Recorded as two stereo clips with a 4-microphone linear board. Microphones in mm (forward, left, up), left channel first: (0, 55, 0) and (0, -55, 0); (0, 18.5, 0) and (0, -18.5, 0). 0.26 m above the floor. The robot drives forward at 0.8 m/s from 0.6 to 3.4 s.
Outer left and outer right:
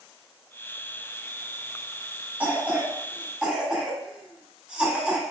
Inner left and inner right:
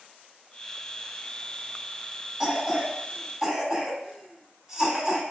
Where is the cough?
15° right (ahead or behind), 1.0 m; by 5.2 s 10° right (ahead or behind), 1.5 m.